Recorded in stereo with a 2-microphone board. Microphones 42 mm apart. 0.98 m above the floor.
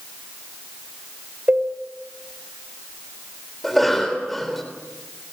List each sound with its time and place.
1.5 s a cowbell: 50° right (ahead or behind), 4 m
3.6 s a cough: 5° left (ahead or behind), 3.5 m